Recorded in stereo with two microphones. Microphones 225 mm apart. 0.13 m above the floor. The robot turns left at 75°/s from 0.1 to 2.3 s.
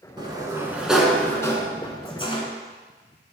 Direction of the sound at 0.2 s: 20° right (ahead or behind).